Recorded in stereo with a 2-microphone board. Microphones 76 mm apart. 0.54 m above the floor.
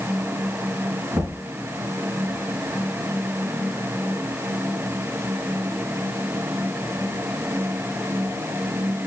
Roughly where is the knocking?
Right.